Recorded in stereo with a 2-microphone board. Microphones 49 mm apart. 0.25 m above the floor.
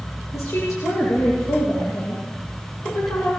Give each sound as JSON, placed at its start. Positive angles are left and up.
{"t": 0.3, "sound": "a woman speaking", "side_deg": 80, "distance_m": 9.0}